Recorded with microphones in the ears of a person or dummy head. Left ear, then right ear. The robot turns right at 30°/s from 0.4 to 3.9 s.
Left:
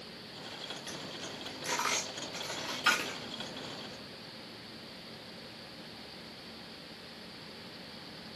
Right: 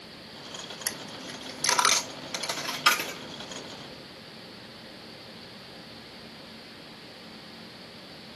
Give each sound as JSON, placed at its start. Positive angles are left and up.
{"t": 0.9, "sound": "a dropped coin", "side_deg": -65, "distance_m": 1.0}